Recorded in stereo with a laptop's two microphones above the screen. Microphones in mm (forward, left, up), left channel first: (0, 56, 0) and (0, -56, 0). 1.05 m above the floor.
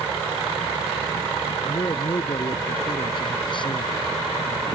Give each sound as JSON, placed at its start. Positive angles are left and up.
{"t": 1.6, "sound": "a man speaking", "side_deg": 40}